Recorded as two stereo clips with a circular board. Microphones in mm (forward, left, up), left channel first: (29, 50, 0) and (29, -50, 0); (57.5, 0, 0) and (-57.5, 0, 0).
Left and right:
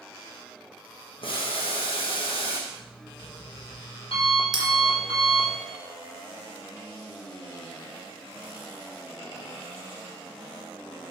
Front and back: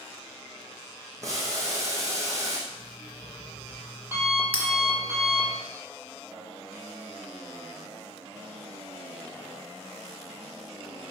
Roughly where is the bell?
Right.